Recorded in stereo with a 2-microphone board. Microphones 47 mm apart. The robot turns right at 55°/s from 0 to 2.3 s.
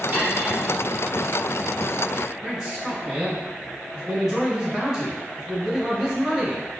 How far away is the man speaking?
About 1.8 m.